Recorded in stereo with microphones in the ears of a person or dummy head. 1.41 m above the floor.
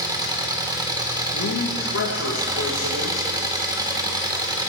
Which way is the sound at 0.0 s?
20° right (ahead or behind).